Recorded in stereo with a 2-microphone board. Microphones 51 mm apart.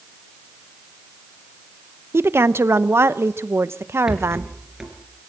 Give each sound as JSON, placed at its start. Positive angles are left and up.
{"t": 2.1, "sound": "a woman speaking", "side_deg": -50, "distance_m": 0.8}
{"t": 4.1, "sound": "a rattle", "side_deg": -10, "distance_m": 4.0}